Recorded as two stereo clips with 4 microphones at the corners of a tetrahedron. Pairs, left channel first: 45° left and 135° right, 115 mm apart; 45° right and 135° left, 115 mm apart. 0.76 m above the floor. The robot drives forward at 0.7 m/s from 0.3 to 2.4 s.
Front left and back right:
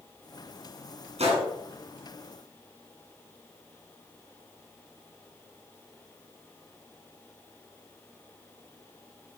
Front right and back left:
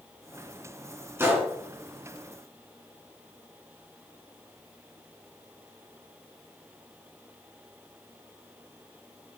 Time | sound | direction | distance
1.2 | a gunshot | 155° right | 2.5 m